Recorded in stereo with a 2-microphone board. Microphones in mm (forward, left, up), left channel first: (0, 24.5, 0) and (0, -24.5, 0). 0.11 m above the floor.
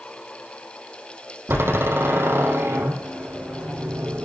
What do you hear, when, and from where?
1.5 s a door slam: 50° right (ahead or behind), 4 m